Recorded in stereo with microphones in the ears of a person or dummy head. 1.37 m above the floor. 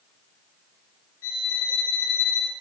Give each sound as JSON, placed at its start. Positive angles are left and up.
{"t": 1.2, "sound": "a violin", "side_deg": 70, "distance_m": 5.0}